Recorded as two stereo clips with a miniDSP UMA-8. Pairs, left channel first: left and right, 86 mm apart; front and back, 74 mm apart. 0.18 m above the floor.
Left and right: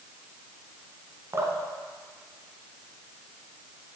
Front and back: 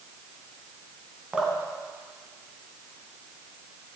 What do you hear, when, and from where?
1.3 s dripping: 115° right, 1.6 m